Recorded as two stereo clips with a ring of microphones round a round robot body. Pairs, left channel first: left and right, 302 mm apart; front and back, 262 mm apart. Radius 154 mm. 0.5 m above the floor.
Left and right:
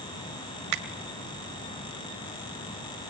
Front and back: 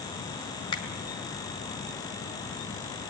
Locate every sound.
0.7 s a finger snap: 75° right, 2 m